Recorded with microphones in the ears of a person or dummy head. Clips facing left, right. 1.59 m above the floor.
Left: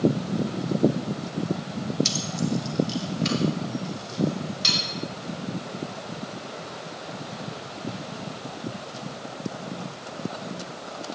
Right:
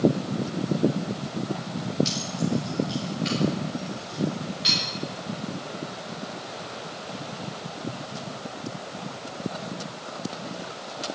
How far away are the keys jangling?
About 2.5 m.